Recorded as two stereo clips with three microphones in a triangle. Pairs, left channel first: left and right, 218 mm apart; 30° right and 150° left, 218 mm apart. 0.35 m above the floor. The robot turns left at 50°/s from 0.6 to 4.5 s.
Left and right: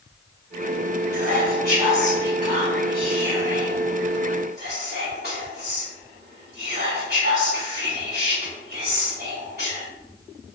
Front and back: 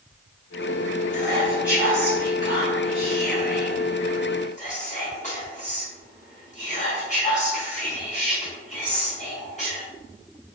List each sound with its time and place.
1.1 s whispering: 95° left, 1.7 m; by 9.8 s 75° right, 1.7 m